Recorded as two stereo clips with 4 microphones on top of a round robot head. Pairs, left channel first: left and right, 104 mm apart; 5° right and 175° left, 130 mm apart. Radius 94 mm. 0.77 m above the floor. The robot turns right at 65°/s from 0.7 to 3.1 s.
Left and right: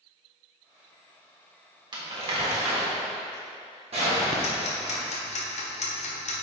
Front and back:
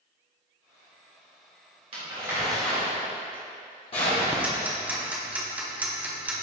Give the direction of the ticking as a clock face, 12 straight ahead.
9 o'clock.